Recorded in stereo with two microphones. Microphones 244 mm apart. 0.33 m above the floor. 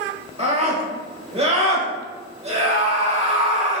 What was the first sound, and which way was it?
A scream, 25° right (ahead or behind).